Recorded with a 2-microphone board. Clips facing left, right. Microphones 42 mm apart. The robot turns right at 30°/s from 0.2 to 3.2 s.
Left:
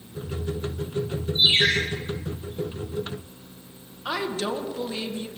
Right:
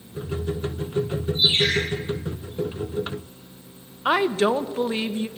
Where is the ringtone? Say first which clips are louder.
Left 2 dB; 70° left (ahead or behind), 5.5 m; by 1.7 s 80° left, 5.5 m.